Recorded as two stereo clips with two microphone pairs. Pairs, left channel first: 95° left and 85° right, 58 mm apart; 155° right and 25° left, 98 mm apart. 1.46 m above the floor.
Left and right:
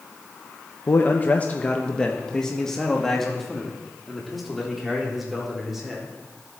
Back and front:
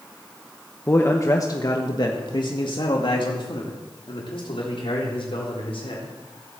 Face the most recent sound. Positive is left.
turn(degrees=-170)